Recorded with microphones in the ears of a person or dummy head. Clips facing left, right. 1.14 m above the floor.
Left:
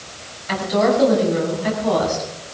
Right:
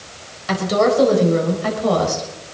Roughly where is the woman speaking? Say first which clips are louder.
Right 1 dB; right.